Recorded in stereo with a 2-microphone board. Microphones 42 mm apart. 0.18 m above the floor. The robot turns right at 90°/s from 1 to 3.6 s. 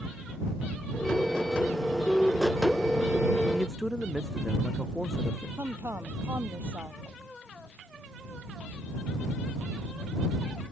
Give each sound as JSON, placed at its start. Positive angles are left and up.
{"t": 3.5, "sound": "a man speaking", "side_deg": -5}
{"t": 5.6, "sound": "a woman speaking", "side_deg": -70}